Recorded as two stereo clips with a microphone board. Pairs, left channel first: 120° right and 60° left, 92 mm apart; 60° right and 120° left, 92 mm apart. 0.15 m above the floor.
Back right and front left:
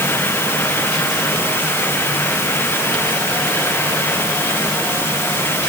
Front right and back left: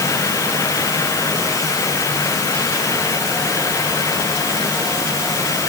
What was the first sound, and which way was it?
Only background noise.